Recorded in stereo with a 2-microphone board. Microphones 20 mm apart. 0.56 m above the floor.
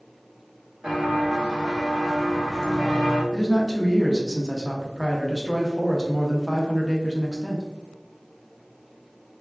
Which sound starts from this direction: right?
Footsteps, at 0.8 s.